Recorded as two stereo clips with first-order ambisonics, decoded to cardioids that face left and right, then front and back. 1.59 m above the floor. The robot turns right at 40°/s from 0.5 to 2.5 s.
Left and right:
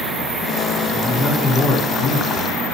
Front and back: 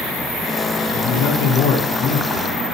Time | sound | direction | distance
0.9 | a man speaking | 5° left | 5 m